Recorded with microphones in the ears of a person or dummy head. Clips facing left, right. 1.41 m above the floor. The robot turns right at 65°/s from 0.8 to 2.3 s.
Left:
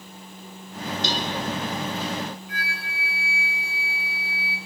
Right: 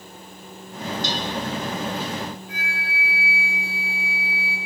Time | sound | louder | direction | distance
1.0 | a cowbell | left 2 dB | 65° left (ahead or behind) | 1.7 m
2.5 | a flute | right 2 dB | 75° left (ahead or behind) | 5 m